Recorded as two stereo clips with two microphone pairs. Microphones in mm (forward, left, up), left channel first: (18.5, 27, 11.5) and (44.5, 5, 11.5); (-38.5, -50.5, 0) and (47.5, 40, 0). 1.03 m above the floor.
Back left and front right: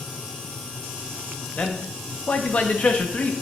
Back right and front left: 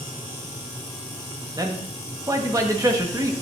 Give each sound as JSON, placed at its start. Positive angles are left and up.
{"t": 1.6, "sound": "a man speaking", "azimuth_deg": 100, "distance_m": 1.1}